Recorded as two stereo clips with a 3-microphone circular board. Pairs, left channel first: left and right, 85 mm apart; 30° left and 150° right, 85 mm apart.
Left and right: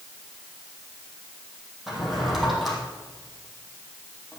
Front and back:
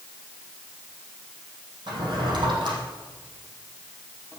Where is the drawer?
Straight behind, 3 m.